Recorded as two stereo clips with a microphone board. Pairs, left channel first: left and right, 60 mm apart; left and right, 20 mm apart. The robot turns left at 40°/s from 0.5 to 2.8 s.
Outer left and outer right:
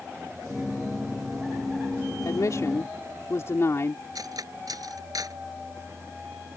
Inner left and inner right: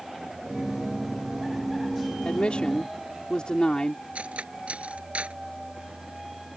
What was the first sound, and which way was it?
A woman speaking, 70° left (ahead or behind).